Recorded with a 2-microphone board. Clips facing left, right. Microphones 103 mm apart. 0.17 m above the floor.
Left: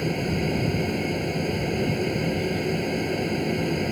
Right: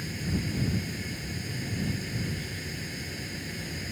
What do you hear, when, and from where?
0.0 s an aircraft: 60° left (ahead or behind)